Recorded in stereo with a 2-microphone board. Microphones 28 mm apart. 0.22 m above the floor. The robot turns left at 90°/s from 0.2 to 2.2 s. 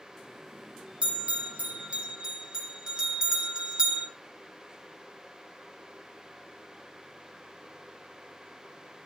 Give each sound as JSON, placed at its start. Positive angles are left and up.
{"t": 1.0, "sound": "a bell", "side_deg": -40, "distance_m": 2.5}